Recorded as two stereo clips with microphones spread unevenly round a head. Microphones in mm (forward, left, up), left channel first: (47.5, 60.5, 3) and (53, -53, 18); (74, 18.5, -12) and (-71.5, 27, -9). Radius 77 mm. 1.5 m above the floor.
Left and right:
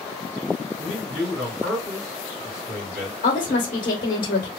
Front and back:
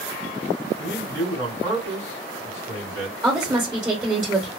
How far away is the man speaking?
About 1.9 m.